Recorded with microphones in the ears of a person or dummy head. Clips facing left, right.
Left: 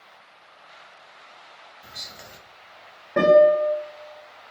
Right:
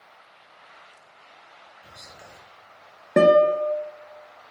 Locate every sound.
1.8 s whispering: 45° left (ahead or behind), 0.5 m
3.2 s a guitar: 40° right (ahead or behind), 0.7 m